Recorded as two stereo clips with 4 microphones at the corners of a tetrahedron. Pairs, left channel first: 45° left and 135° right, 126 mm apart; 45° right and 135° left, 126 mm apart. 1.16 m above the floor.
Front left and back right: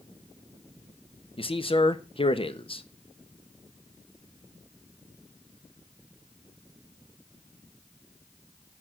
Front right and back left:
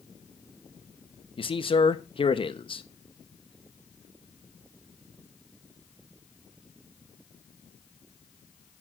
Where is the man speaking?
Straight ahead, 1.0 m.